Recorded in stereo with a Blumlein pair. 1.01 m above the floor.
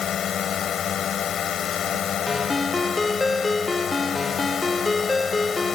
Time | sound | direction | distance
0.0 | a drone | 25° left | ?
2.3 | a ringtone | 10° left | ?